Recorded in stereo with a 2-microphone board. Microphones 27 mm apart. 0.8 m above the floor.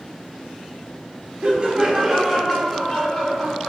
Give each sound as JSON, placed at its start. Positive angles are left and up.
{"t": 1.4, "sound": "laughter", "side_deg": -50, "distance_m": 0.7}